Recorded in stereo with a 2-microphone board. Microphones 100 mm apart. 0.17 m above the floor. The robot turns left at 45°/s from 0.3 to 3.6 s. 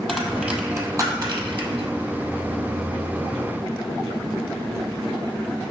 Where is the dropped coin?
Centre (ahead or behind), 0.7 m; by 1.9 s 70° right (ahead or behind), 0.7 m.